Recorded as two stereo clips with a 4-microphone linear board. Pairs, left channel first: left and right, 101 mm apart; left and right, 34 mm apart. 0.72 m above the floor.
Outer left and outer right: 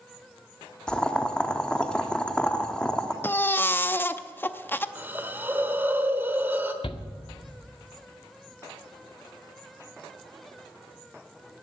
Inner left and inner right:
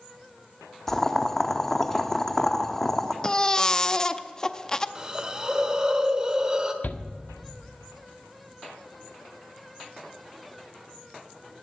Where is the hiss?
20° right (ahead or behind), 1.1 m.